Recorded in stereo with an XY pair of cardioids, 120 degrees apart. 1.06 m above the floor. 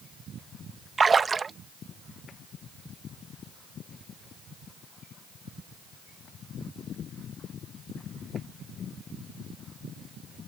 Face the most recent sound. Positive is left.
turn(degrees=-25)